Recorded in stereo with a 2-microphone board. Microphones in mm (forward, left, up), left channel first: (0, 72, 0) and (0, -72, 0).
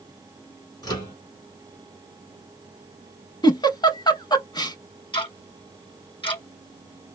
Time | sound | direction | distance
0.8 | a microwave | 30° left (ahead or behind) | 1.6 m
3.4 | a giggle | 30° left (ahead or behind) | 0.5 m
5.1 | ticking | 35° left (ahead or behind) | 1.9 m